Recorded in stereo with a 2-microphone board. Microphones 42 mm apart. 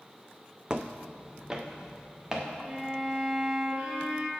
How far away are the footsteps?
About 0.5 m.